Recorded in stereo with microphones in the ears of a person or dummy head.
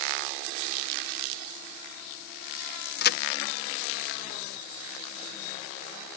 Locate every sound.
3.0 s a crack: 55° left (ahead or behind)